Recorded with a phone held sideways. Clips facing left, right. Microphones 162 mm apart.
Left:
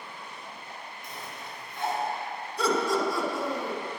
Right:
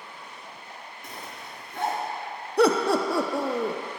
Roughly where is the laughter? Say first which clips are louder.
Right 6 dB; right.